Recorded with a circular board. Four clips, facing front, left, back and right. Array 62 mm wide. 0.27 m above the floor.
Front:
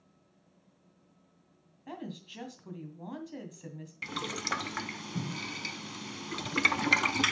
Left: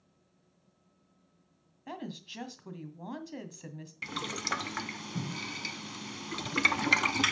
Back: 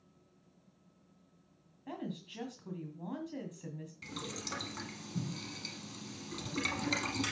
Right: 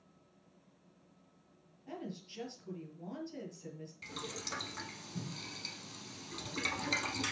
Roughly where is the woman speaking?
Left.